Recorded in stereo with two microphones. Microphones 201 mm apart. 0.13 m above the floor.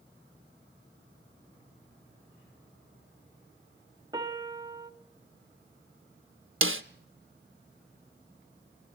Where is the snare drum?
80° right, 0.6 m.